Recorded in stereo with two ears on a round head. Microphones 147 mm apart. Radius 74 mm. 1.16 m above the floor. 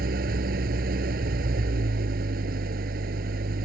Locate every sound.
0.0 s an engine running: 65° right (ahead or behind)